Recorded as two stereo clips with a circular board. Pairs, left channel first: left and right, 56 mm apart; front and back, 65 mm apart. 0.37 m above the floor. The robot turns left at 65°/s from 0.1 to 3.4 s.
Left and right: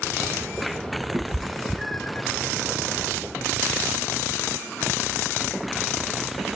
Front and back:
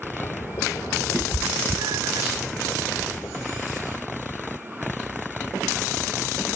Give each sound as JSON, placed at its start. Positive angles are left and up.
{"t": 1.1, "sound": "a cat meowing", "azimuth_deg": -140, "distance_m": 0.9}